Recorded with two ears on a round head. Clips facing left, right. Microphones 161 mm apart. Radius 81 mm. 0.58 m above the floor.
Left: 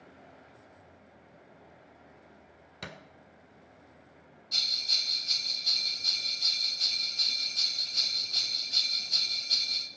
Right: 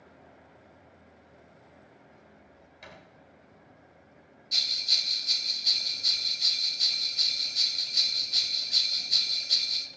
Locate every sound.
2.8 s a thud: 80° left, 1.8 m
4.5 s a bell: 20° right (ahead or behind), 0.6 m